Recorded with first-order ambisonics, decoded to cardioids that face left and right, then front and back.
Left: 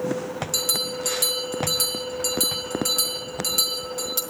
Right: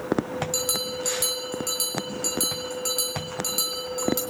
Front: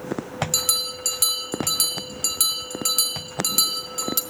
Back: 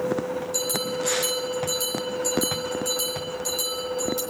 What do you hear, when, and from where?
0.5 s a bell: 5° left, 3 m